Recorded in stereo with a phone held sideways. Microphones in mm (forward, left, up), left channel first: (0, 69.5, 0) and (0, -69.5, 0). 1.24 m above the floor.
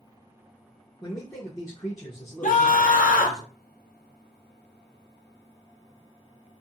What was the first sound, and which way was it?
A man speaking, 25° left (ahead or behind).